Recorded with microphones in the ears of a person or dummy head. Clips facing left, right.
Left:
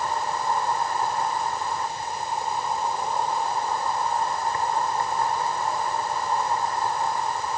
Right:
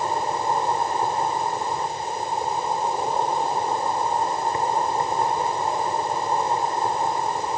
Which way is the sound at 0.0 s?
20° right (ahead or behind).